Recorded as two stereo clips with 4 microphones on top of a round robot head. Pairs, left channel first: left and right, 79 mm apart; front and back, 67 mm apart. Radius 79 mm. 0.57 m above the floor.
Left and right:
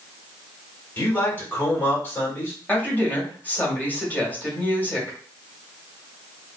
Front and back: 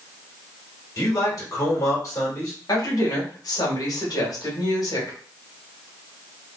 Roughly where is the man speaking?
Ahead left.